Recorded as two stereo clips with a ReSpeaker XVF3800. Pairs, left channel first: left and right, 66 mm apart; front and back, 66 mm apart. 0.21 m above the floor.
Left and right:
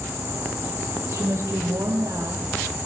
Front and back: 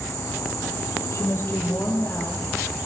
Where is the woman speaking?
45° right, 7.5 m; by 2.8 s 60° right, 8.5 m.